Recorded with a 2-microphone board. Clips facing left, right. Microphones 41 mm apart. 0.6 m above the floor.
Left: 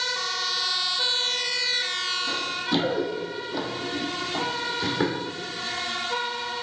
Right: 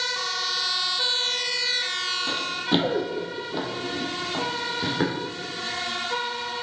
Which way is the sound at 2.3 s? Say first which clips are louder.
Right 3 dB; 40° right (ahead or behind).